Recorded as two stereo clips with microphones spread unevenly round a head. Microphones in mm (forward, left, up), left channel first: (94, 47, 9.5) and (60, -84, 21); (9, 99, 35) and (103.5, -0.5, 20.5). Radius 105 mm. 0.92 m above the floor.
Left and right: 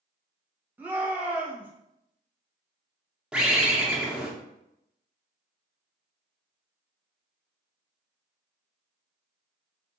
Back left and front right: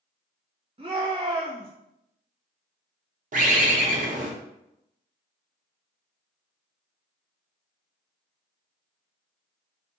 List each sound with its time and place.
0.8 s a shout: 25° right, 1.1 m
3.3 s a bird: 20° right, 0.7 m